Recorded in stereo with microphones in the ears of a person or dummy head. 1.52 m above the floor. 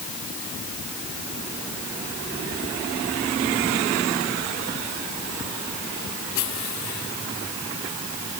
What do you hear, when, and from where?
Only background noise.